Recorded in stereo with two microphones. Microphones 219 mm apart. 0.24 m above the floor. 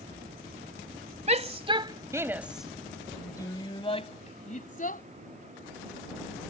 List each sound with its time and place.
1.3 s a shout: 30° right (ahead or behind); by 5.0 s 40° left (ahead or behind)